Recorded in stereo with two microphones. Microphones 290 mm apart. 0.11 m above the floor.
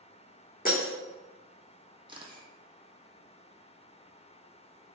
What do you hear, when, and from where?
0.7 s breaking glass: 30° left (ahead or behind), 1.9 m
2.1 s a camera shutter: 15° right (ahead or behind), 0.7 m